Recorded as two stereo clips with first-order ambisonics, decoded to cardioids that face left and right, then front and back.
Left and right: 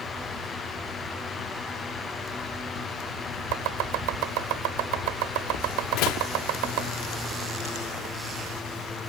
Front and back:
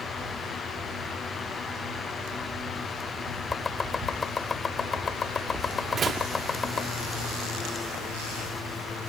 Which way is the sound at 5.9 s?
115° left.